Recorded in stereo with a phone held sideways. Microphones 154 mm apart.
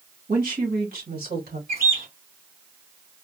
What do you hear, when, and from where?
0.3 s a woman speaking: 70° right (ahead or behind), 1.9 m; by 1.6 s 75° right (ahead or behind), 2.5 m
1.7 s a bird: 85° right, 3 m